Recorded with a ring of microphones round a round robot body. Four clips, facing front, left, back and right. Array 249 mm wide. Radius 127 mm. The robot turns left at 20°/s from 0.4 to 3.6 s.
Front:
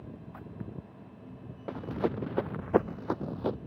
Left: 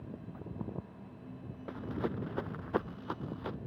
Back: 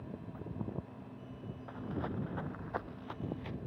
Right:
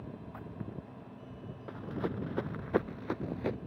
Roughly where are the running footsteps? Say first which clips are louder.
Even, front 9 dB; ahead.